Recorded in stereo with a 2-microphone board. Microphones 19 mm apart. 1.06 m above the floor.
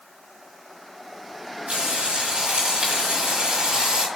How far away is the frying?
About 4 m.